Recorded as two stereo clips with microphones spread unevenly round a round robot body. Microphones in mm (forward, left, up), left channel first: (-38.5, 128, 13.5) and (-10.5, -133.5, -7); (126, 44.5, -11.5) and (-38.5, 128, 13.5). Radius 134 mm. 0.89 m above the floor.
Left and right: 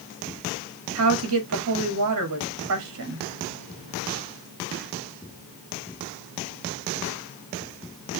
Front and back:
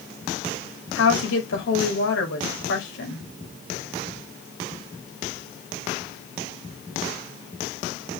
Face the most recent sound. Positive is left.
turn(degrees=-45)